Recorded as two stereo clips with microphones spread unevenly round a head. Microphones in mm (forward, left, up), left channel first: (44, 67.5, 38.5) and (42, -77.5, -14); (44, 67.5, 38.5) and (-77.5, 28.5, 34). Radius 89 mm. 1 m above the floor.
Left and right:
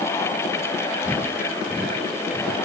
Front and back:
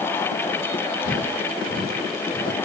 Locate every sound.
1.1 s footsteps: 15° left, 8 m; by 2.6 s 10° left, 7 m